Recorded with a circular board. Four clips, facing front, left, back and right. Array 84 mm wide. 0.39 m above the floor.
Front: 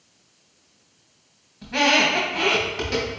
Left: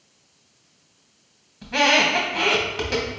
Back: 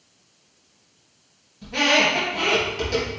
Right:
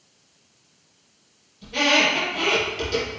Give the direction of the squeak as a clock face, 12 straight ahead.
10 o'clock.